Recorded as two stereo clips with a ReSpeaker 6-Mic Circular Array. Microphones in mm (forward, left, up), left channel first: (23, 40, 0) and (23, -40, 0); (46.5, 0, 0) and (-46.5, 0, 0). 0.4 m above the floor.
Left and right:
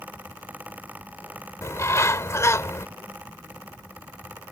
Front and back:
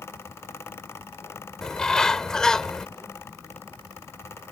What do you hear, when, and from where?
1.6 s a bird: 80° left